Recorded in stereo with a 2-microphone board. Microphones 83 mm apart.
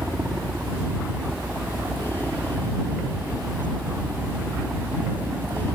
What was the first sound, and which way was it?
A helicopter, 20° right (ahead or behind).